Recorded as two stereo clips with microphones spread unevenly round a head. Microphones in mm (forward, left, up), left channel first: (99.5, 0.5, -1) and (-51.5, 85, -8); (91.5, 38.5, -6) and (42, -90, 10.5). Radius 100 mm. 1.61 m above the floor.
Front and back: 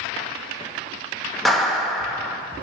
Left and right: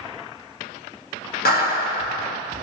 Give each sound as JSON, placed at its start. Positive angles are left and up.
{"t": 1.4, "sound": "a clap", "azimuth_deg": 60, "distance_m": 1.7}